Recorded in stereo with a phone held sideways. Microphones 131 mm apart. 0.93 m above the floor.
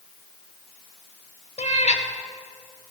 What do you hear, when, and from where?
1.6 s a cat meowing: 60° left (ahead or behind), 1.0 m